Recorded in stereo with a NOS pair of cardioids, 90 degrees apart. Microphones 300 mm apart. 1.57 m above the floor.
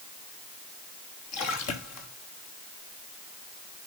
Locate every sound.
1.3 s a splash: 60° left, 3.5 m